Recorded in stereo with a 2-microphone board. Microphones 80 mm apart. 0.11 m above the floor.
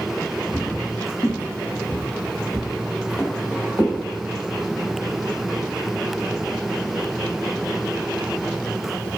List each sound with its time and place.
0.5 s footsteps: 70° left (ahead or behind), 1.1 m; by 4.0 s 15° left (ahead or behind), 1.6 m